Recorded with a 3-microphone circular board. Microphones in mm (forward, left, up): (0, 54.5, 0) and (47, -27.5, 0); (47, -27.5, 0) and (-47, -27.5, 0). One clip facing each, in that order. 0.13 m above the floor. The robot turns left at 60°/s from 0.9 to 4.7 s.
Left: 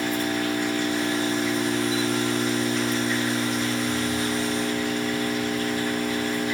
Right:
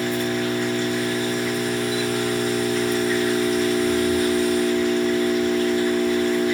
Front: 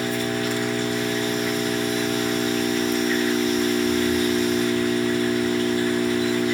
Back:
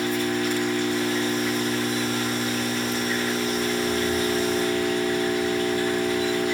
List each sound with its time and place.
0.0 s an engine running: 75° left, 1.6 m; by 6.5 s 155° right, 1.6 m